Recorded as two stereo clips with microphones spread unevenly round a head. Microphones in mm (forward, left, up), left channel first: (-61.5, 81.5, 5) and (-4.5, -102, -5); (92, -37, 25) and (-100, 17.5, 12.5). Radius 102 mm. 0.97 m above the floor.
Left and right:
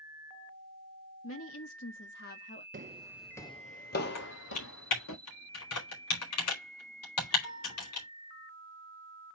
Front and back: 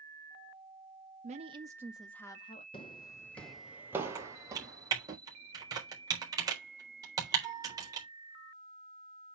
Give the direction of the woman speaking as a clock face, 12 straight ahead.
8 o'clock.